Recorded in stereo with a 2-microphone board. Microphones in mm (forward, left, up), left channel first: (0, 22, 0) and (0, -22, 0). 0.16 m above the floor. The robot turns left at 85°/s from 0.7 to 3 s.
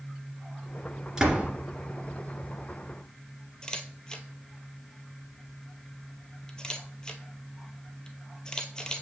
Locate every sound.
1.2 s a door slam: 20° right (ahead or behind), 1.8 m; by 1.5 s 40° right (ahead or behind), 1.8 m
3.6 s a camera shutter: 20° left (ahead or behind), 0.8 m